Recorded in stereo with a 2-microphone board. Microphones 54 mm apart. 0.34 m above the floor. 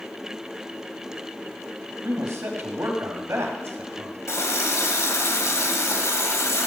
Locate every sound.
2.0 s a man speaking: 55° right (ahead or behind), 2.5 m
4.3 s a running tap: 60° left (ahead or behind), 1.5 m